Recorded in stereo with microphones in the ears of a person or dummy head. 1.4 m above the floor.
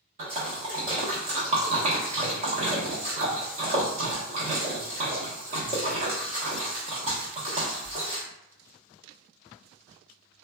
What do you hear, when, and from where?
0.2 s a splash: 40° right (ahead or behind), 1.0 m